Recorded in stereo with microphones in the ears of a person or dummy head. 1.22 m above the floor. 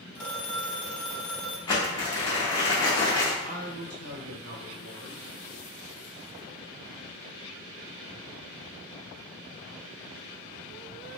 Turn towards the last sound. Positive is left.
turn(degrees=-75)  # may be behind; listen again after turning